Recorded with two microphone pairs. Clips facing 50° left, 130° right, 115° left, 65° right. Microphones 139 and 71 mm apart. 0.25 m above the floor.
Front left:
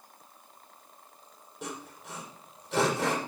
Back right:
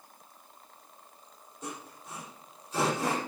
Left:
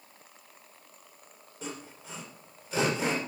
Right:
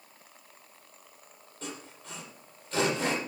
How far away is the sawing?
About 6.5 m.